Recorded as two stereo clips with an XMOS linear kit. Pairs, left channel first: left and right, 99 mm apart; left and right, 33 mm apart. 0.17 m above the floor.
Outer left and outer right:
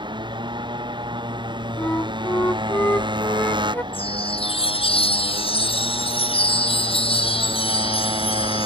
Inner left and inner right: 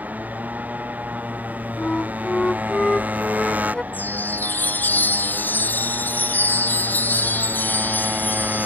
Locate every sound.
0.0 s a motorcycle: 50° right (ahead or behind)
1.8 s a flute: 20° left (ahead or behind)
3.9 s a chime: 70° left (ahead or behind)